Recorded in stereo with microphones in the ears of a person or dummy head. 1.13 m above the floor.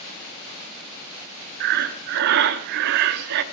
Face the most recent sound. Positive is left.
turn(degrees=-65)  # may be behind; listen again after turning